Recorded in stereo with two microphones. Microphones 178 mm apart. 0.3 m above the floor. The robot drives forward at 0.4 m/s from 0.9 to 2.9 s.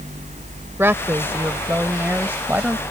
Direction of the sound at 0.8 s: 15° right (ahead or behind).